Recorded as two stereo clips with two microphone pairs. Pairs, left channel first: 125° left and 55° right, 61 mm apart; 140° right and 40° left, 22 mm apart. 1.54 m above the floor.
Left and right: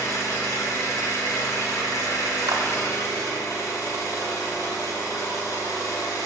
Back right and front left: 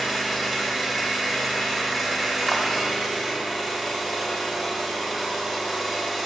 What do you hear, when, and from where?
0.0 s an engine running: 120° left, 3 m
2.5 s a clap: 50° right, 1.4 m